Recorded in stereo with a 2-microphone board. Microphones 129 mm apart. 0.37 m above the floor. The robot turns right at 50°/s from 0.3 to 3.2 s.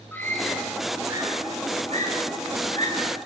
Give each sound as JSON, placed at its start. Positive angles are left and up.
{"t": 0.1, "sound": "a scream", "side_deg": 15, "distance_m": 6.5}